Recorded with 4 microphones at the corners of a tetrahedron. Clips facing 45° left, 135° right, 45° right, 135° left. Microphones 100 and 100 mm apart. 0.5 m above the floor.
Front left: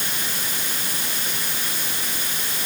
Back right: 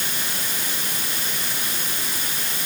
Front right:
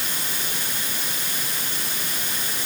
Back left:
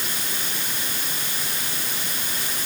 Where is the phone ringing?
No phone ringing in this recording.